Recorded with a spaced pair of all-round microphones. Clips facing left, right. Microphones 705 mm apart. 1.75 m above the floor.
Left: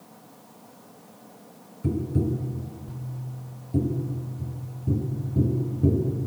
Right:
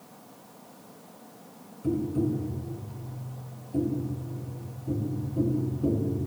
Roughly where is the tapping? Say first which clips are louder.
Even; left.